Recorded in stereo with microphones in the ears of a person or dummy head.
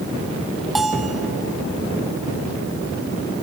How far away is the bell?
About 1.0 m.